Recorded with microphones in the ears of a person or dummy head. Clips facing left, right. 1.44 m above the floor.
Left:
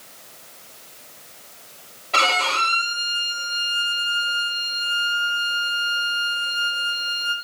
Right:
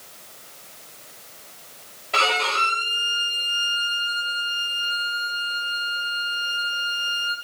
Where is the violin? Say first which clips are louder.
Left 1 dB; 5° right (ahead or behind), 2.5 m.